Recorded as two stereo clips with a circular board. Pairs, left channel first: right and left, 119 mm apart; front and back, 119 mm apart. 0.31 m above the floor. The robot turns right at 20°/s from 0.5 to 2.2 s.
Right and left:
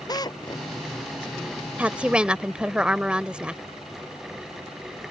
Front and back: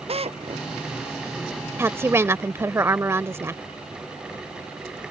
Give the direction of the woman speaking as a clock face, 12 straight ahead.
7 o'clock.